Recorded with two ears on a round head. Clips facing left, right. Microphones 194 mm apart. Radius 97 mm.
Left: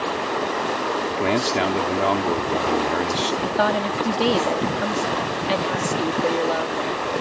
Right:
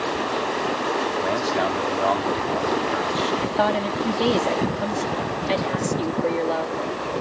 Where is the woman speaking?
5° left (ahead or behind).